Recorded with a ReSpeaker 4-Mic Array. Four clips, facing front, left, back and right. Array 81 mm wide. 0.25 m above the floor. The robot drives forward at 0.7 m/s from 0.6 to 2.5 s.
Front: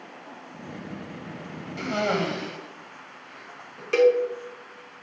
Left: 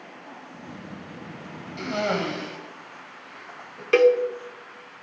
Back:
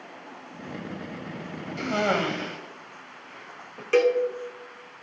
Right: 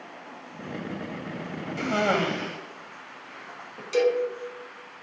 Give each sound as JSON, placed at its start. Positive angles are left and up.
{"t": 1.8, "sound": "a cough", "azimuth_deg": -85, "distance_m": 1.0}
{"t": 3.9, "sound": "a cowbell", "azimuth_deg": 95, "distance_m": 0.8}